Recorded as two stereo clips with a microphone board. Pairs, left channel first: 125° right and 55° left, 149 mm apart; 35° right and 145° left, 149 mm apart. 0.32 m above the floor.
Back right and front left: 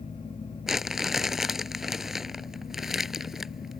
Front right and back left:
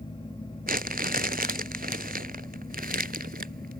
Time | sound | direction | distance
0.7 | crumpling | 145° left | ?